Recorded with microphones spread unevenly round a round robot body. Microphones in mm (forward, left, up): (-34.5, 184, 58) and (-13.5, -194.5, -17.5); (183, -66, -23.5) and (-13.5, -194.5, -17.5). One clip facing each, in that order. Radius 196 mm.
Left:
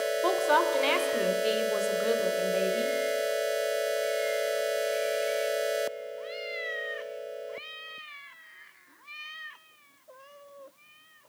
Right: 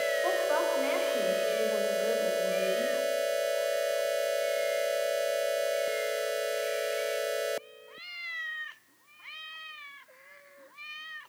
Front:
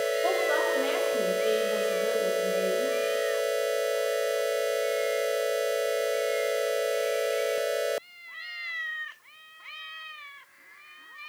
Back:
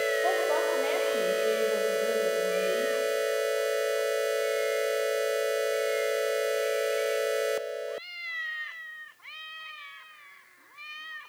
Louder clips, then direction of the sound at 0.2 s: Left 5 dB, even; 110° left.